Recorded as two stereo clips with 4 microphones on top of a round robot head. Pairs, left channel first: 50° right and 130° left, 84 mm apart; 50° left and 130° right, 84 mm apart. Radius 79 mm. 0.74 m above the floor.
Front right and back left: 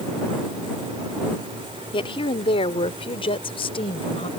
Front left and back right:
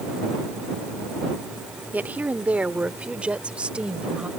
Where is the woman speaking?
60° right; by 4.3 s 50° right.